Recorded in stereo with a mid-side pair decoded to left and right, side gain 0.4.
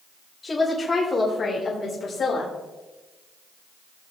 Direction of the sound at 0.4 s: 35° left.